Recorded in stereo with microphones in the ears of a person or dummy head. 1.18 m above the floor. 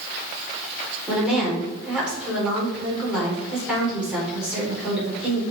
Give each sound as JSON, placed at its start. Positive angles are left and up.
{"t": 1.1, "sound": "a woman speaking", "side_deg": -5, "distance_m": 4.5}